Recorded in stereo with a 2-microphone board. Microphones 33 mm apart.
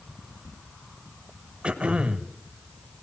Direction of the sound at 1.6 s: 30° right (ahead or behind).